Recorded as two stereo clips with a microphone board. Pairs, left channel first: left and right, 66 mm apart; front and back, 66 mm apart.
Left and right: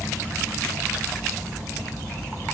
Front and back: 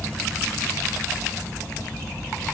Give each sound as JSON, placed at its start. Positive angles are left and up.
{"t": 0.0, "sound": "an insect", "azimuth_deg": 35, "distance_m": 1.7}